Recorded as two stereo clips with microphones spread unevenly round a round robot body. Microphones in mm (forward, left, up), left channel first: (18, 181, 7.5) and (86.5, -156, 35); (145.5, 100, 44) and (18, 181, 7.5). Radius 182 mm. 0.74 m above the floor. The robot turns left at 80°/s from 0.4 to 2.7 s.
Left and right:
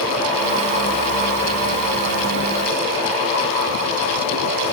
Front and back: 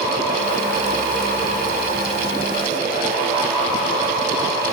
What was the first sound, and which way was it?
Only background noise.